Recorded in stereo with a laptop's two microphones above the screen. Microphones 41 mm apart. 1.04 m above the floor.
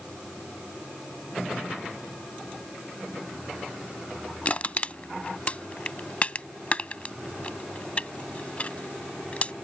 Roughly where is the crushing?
Left.